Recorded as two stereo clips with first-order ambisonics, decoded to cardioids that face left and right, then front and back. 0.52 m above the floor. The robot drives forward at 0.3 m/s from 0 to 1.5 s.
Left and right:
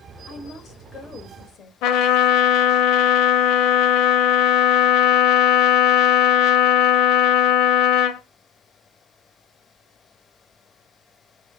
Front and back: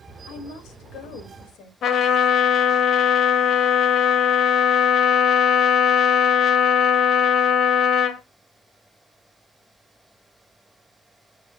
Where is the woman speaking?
25° left, 2 m; by 1.7 s 30° left, 1.8 m.